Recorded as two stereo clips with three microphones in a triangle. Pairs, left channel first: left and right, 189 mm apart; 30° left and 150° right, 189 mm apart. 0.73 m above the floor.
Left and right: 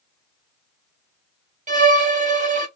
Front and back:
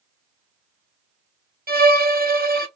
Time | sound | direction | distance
1.7 | a violin | 130° right | 0.8 m